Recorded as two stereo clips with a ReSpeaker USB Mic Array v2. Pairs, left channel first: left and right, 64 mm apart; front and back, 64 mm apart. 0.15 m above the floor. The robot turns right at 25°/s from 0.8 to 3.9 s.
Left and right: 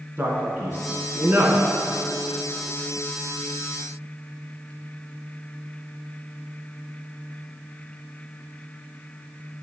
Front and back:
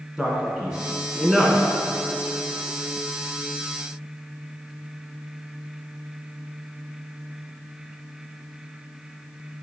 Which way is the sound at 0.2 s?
110° right.